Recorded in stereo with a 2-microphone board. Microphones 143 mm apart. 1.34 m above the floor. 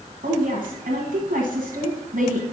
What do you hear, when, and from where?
0.2 s a woman speaking: 75° right (ahead or behind), 1.4 m